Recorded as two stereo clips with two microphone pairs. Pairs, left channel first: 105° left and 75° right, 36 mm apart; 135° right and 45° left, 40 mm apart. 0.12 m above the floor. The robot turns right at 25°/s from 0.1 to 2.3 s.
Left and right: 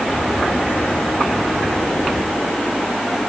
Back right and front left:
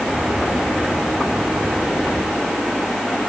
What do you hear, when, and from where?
Only background noise.